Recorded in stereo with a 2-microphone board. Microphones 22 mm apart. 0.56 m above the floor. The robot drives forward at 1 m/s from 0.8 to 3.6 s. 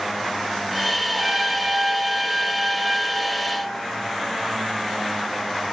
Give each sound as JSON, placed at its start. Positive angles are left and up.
{"t": 1.1, "sound": "a trumpet", "side_deg": -25, "distance_m": 0.9}